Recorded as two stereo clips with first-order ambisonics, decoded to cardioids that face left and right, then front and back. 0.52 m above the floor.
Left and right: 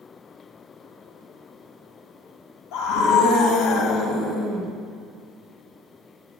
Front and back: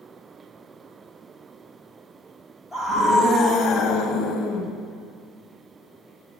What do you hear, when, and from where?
2.7 s a scream: 75° left, 3 m; by 4.7 s 20° left, 3 m